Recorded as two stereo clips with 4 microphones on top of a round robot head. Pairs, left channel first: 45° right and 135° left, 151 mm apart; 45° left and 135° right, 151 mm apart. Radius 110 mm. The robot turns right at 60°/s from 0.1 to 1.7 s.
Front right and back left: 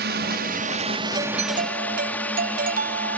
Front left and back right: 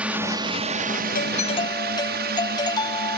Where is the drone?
140° left; by 3.2 s 125° right.